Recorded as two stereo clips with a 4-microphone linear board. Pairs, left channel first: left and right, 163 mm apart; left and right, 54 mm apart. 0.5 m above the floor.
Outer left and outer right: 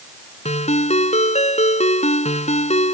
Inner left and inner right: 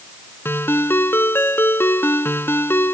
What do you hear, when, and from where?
0.5 s a ringtone: 45° left (ahead or behind)